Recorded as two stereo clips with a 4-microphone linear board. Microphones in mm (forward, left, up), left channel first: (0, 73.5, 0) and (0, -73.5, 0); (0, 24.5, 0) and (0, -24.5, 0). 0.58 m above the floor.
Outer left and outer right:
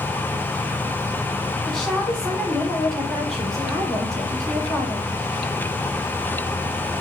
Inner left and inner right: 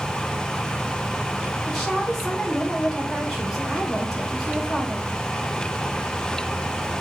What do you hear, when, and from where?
1.7 s a woman speaking: 5° left (ahead or behind), 1.7 m